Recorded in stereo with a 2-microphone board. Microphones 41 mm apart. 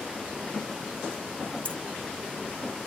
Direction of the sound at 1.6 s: 35° left (ahead or behind).